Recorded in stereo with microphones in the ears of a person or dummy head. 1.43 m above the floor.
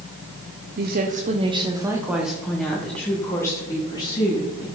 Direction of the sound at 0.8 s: 50° right (ahead or behind).